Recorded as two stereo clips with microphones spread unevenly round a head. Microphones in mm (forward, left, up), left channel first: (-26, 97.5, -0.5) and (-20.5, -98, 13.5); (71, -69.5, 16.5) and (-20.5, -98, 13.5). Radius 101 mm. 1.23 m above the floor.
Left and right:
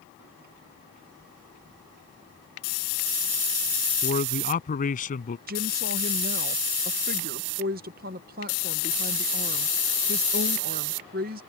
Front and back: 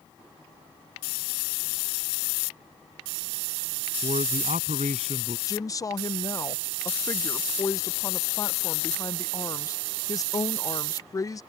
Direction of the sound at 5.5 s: 40° right.